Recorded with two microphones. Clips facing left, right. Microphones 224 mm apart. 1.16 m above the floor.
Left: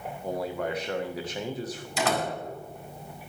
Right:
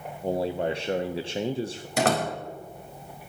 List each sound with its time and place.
0.2 s a man speaking: 30° right (ahead or behind), 0.6 m
2.0 s a door slam: 65° right (ahead or behind), 4 m